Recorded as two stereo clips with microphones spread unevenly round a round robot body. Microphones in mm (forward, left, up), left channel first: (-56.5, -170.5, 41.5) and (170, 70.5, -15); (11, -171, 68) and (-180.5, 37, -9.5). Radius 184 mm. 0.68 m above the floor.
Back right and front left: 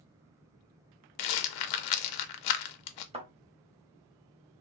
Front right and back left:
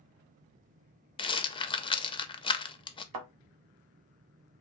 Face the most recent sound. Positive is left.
turn(degrees=125)